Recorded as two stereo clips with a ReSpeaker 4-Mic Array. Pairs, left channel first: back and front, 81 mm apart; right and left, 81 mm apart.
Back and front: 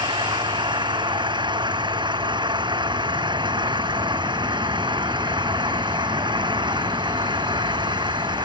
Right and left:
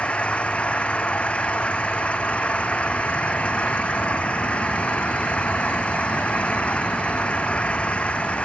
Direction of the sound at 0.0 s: 15° right.